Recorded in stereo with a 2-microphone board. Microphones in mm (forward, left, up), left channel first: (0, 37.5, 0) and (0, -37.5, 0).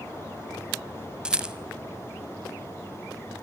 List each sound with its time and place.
1.2 s a rattle: 10° right (ahead or behind), 1.0 m